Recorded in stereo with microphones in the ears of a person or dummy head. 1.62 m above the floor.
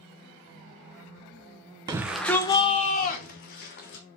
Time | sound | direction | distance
1.9 | a shout | 20° right (ahead or behind) | 0.8 m